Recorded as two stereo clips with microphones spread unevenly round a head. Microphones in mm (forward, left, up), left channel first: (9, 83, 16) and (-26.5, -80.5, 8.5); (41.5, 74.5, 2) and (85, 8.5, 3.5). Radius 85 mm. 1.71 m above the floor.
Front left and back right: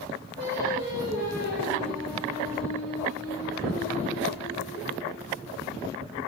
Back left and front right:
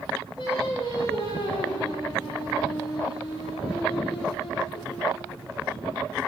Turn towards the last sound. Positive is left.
turn(degrees=115)